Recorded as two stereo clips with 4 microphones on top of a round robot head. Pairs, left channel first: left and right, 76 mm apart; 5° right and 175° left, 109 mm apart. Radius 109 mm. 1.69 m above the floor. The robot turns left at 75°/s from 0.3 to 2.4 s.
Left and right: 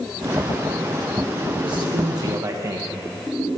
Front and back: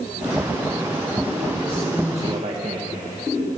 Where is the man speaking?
75° right, 0.6 m; by 2.9 s 135° right, 0.6 m.